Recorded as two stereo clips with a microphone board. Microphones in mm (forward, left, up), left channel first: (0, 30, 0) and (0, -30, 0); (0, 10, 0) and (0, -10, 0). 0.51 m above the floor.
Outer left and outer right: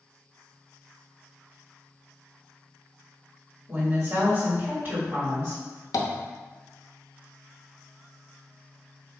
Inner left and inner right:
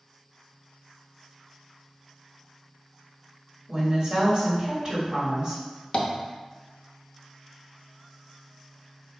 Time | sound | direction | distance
3.7 | a woman speaking | 40° right (ahead or behind) | 1.5 m
5.9 | tapping | 70° left (ahead or behind) | 0.6 m